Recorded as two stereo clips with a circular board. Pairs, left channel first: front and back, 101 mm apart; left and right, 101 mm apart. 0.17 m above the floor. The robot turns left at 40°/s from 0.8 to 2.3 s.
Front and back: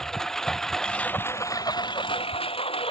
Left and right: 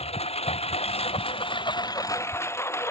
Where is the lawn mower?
85° left; by 2.9 s 25° left.